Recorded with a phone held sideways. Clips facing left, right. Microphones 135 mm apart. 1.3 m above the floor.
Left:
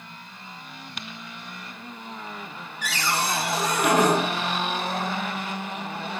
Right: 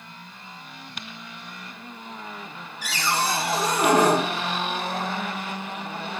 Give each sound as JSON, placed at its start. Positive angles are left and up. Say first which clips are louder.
{"t": 2.8, "sound": "a cupboard door", "louder": "right 1 dB", "side_deg": -30, "distance_m": 1.9}